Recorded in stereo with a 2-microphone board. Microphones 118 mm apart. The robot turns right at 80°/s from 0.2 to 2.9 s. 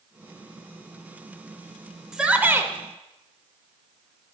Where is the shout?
5° right (ahead or behind), 0.9 m; by 2.7 s 25° right (ahead or behind), 0.9 m.